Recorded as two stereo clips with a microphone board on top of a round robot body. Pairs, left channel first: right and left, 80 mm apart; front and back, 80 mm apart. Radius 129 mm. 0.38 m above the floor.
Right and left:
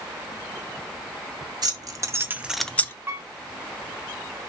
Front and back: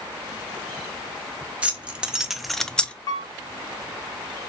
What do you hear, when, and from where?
1.6 s keys jangling: 110° left, 0.8 m; by 2.9 s 60° right, 0.5 m
3.1 s a piano: 30° left, 0.7 m